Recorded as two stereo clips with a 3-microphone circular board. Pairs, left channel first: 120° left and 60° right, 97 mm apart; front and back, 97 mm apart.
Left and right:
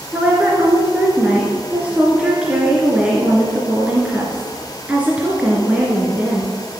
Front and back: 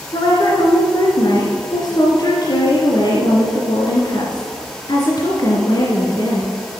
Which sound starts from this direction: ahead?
A woman speaking, at 0.1 s.